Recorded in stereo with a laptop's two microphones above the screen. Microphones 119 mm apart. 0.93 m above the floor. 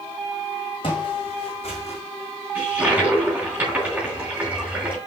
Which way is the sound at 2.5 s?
15° right (ahead or behind).